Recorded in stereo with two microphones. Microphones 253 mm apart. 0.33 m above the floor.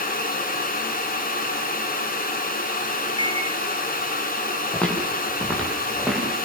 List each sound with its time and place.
3.1 s a microwave: 70° left (ahead or behind), 6 m
4.7 s footsteps: 5° left (ahead or behind), 9.5 m; by 6.3 s centre (ahead or behind), 8.5 m